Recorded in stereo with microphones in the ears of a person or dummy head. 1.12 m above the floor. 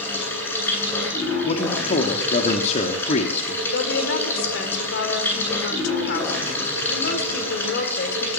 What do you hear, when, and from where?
0.0 s running water: 10° left (ahead or behind), 10 m
1.4 s a man speaking: 40° left (ahead or behind), 2 m
3.7 s a woman speaking: 65° left (ahead or behind), 4 m